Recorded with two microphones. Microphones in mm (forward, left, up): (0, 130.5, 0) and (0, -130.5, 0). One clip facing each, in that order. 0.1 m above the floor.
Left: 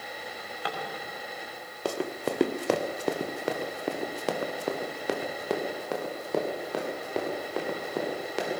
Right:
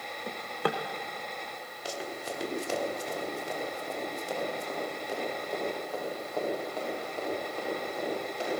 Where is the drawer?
60° right (ahead or behind), 2.5 m.